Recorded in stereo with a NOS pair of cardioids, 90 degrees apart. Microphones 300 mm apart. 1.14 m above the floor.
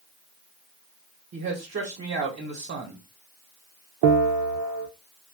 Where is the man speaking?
45° right, 1.1 m.